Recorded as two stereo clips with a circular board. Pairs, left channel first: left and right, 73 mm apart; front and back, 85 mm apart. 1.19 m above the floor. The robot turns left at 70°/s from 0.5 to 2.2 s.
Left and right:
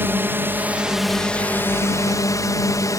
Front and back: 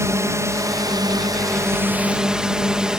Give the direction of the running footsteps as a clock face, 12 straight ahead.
I don't hear running footsteps.